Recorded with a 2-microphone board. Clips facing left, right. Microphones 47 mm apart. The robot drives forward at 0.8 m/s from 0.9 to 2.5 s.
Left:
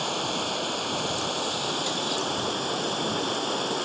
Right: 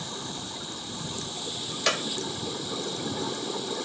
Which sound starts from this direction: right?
A clap, at 1.9 s.